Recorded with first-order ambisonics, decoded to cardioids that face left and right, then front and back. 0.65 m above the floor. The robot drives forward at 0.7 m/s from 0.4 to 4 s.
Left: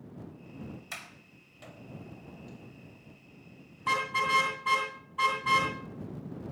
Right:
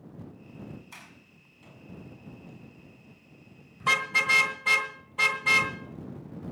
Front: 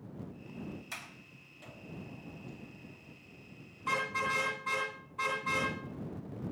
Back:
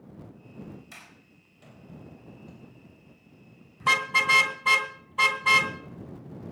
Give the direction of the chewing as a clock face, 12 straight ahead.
I don't hear chewing.